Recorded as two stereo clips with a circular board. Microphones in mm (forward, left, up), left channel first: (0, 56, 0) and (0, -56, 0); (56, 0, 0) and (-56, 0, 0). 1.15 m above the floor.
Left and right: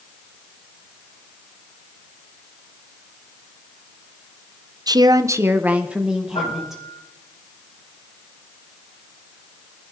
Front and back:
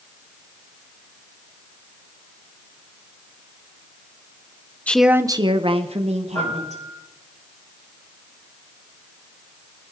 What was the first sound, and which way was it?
A woman speaking, 70° right.